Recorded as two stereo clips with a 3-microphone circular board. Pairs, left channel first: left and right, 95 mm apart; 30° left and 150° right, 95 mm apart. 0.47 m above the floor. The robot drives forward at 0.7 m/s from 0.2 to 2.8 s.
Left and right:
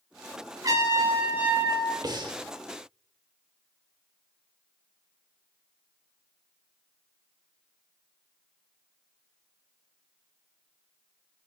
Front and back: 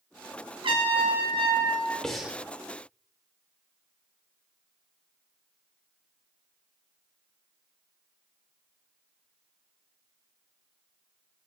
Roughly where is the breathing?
Ahead right.